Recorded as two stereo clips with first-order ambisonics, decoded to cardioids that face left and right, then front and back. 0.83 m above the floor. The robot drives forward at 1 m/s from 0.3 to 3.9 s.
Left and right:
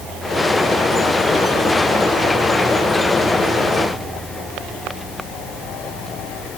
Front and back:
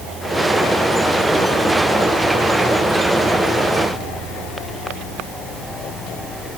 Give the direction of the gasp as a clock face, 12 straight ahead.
I don't hear a gasp.